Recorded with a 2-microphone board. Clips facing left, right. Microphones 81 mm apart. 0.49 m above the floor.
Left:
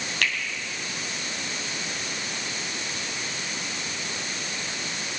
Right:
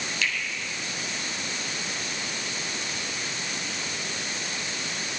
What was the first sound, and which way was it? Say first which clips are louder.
A finger snap: left 2 dB; 55° left (ahead or behind).